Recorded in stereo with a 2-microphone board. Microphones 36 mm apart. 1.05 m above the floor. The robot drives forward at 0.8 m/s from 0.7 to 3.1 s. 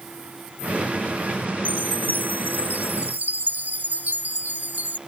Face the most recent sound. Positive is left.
turn(degrees=-55)  # may be behind; listen again after turning